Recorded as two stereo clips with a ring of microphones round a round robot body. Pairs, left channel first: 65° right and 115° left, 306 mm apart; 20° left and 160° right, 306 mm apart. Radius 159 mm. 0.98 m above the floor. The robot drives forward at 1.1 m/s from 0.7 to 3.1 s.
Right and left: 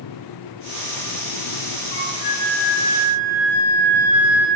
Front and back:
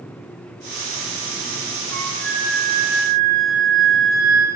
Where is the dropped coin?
I don't hear a dropped coin.